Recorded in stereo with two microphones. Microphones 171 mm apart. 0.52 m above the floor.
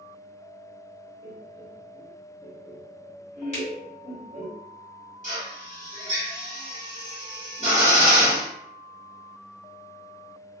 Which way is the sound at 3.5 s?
40° left (ahead or behind).